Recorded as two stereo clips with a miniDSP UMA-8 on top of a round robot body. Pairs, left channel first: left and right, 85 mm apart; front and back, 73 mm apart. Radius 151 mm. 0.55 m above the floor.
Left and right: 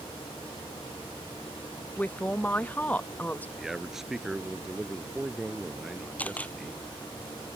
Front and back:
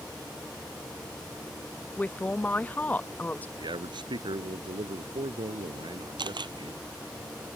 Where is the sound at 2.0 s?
40° left.